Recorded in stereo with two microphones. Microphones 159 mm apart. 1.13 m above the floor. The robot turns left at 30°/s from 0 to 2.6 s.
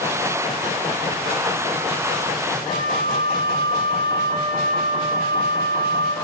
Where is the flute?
40° left (ahead or behind), 5 m.